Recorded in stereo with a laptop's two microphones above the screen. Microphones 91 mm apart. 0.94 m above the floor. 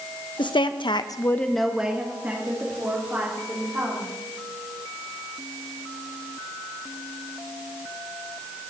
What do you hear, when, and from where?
0.4 s a woman speaking: 60° left (ahead or behind), 0.9 m; by 4.1 s 30° right (ahead or behind), 3 m